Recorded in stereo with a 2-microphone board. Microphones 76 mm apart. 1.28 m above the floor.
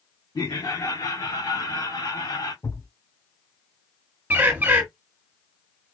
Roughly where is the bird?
Right.